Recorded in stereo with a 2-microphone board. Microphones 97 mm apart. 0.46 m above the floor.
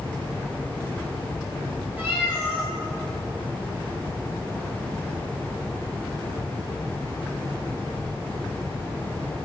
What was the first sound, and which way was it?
A cat meowing, 15° right (ahead or behind).